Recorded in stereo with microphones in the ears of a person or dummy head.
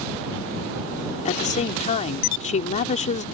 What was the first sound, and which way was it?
A woman speaking, 35° left (ahead or behind).